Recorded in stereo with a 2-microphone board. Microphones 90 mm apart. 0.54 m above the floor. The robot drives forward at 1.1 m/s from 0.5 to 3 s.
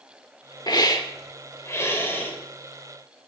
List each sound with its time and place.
0.7 s a hiss: 50° left (ahead or behind), 1.3 m; by 2.3 s 25° left (ahead or behind), 2.5 m